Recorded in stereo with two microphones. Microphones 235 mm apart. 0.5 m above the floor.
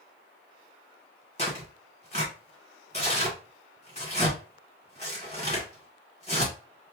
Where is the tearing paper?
25° left (ahead or behind), 1.8 m.